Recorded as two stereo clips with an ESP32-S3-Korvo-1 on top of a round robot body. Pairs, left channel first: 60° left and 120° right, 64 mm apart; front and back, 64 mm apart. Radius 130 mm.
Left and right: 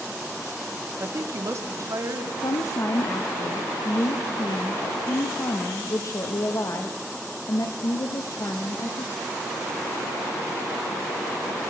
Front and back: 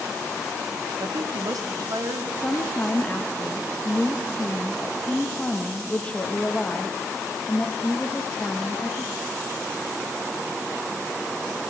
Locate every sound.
1.0 s a woman speaking: 170° right, 1.2 m; by 2.3 s 155° right, 2 m
2.4 s a woman speaking: 70° left, 1.2 m